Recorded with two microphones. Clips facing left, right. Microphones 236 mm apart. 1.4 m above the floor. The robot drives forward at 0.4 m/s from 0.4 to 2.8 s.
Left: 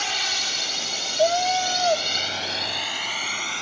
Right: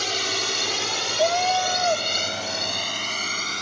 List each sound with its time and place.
0.0 s a drone: 45° right (ahead or behind)
1.2 s a cat meowing: 20° left (ahead or behind)